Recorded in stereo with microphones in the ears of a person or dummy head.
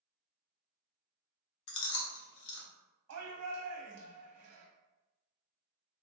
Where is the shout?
70° right (ahead or behind), 0.7 m.